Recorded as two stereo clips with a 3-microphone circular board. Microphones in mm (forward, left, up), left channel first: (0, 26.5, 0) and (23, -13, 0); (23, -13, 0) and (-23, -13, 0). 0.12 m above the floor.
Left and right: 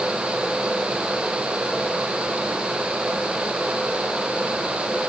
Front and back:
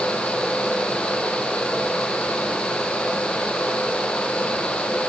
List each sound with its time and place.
Only background noise.